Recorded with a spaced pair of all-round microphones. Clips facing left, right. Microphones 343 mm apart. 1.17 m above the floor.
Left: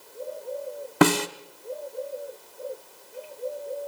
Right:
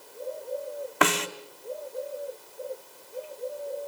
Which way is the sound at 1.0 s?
50° left (ahead or behind).